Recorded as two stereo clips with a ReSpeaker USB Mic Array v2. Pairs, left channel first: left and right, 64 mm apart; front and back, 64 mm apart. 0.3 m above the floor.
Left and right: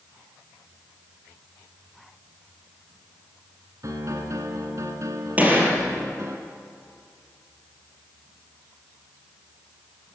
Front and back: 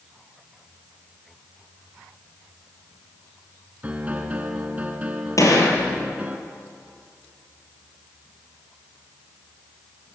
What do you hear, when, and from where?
3.8 s a piano: 115° right, 2.5 m
5.4 s a gunshot: 30° right, 4.5 m